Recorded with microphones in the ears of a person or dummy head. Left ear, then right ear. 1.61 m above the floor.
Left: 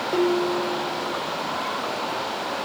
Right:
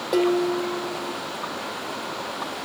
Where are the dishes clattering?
30° right (ahead or behind), 1.5 m.